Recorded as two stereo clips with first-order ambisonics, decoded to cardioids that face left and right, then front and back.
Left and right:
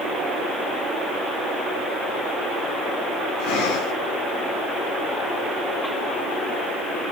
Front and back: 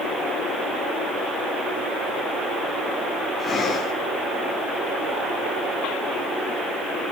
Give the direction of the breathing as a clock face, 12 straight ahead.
9 o'clock.